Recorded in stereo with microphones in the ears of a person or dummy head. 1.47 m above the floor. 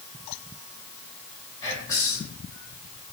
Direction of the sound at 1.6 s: 25° left (ahead or behind).